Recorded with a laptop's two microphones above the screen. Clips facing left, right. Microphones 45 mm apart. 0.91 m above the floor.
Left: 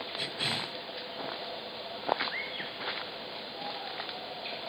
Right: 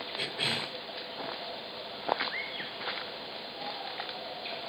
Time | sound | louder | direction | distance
0.2 | a cough | right 2 dB | 35° right (ahead or behind) | 4.5 m